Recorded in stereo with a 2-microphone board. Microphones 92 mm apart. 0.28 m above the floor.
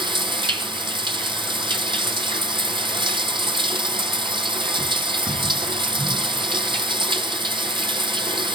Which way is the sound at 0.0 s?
70° right (ahead or behind).